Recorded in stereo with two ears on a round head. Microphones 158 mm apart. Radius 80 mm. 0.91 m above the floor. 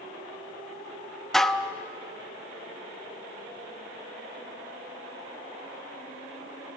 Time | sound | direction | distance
1.3 | dishes clattering | centre (ahead or behind) | 0.6 m